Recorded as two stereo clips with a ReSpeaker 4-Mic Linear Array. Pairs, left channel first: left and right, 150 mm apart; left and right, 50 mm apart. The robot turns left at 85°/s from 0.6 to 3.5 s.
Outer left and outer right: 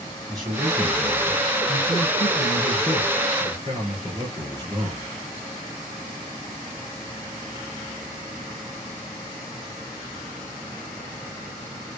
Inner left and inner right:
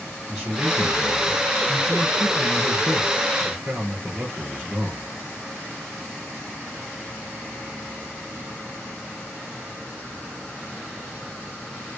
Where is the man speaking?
150° right, 3 m; by 5.1 s 35° right, 3 m.